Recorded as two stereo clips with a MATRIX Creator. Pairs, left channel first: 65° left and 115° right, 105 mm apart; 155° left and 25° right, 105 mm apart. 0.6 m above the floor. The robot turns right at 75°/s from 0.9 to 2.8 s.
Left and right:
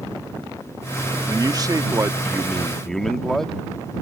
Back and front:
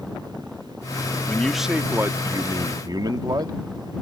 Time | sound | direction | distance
1.3 | a man speaking | 130° right | ?